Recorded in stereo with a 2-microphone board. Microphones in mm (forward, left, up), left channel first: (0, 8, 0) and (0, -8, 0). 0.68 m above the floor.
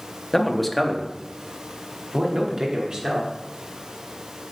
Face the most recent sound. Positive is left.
turn(degrees=-50)  # may be behind; listen again after turning